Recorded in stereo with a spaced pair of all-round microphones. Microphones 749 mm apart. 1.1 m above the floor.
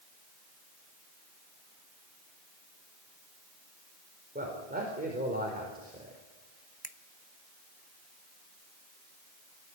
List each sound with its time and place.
4.3 s a man speaking: 10° right (ahead or behind), 4.5 m
6.8 s a finger snap: 35° left (ahead or behind), 0.8 m